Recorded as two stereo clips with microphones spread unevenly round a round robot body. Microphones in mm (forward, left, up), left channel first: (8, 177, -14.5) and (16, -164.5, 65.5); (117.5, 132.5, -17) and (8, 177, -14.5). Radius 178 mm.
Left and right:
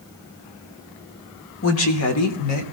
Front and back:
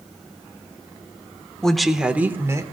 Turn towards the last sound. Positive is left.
turn(degrees=100)